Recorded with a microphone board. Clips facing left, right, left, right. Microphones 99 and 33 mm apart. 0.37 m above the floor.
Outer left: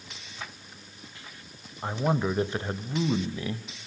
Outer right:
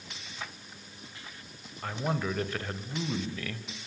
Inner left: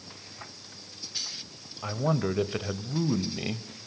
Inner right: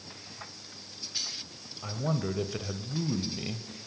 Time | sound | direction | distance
1.8 | a man speaking | 20° left (ahead or behind) | 1.4 m